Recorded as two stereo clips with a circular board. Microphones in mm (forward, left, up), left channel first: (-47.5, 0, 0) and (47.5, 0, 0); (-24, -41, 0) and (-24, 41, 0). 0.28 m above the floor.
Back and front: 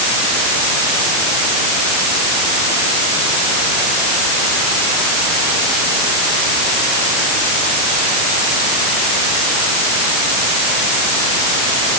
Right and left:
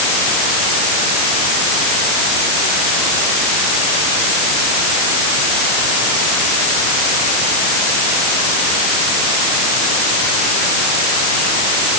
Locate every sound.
Only background noise.